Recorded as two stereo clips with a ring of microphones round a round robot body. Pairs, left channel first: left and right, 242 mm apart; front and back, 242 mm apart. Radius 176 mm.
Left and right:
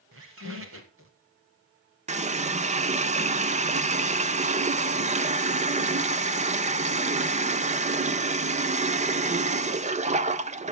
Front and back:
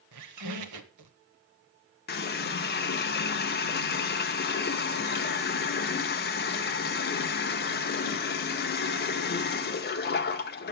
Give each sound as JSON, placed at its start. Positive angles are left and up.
{"t": 0.1, "sound": "a squeak", "azimuth_deg": -150, "distance_m": 0.7}
{"t": 2.1, "sound": "a running tap", "azimuth_deg": -35, "distance_m": 0.8}